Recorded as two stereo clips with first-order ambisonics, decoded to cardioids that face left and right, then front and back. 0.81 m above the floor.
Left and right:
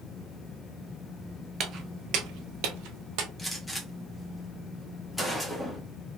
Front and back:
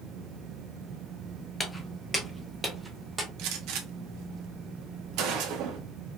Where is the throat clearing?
No throat clearing in this recording.